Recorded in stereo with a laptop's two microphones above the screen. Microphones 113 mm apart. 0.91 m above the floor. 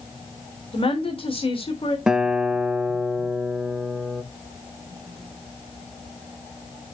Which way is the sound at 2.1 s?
5° right (ahead or behind).